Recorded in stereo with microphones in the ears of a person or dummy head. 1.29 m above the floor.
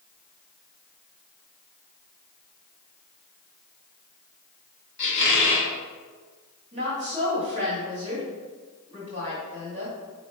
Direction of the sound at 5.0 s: 60° left (ahead or behind).